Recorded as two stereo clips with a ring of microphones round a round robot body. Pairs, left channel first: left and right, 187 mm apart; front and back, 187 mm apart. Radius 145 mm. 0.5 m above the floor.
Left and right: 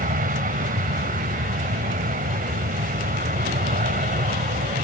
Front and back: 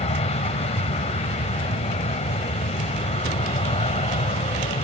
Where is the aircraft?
55° right.